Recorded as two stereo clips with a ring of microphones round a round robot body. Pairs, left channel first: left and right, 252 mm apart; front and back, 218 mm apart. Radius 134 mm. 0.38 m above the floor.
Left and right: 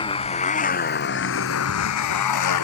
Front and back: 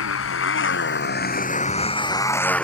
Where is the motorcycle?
20° left; by 2.6 s 85° left.